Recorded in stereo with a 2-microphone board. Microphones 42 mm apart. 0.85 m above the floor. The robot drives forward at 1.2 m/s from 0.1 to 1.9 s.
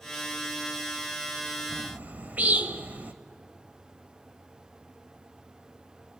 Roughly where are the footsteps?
I don't hear footsteps.